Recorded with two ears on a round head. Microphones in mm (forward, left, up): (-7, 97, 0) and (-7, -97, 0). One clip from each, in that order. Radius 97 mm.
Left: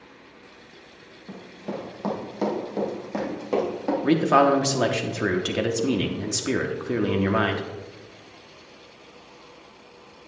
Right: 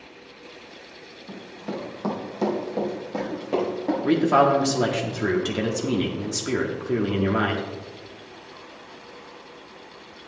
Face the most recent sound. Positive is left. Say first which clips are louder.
# even
turn(degrees=25)  # may be behind; listen again after turning